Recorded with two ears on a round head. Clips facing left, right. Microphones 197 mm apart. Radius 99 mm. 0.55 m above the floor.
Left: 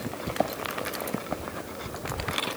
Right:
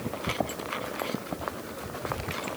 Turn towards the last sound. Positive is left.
No sound to turn to.